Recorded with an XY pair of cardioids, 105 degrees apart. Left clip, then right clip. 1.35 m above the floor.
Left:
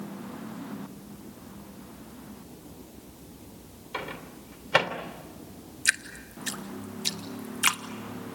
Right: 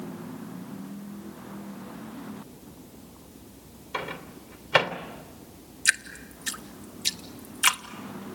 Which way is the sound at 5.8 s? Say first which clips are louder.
Right 2 dB; 10° right.